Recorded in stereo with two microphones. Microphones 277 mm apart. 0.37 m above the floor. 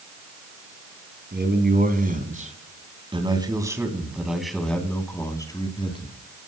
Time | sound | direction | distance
1.3 | a man speaking | 40° right (ahead or behind) | 3.5 m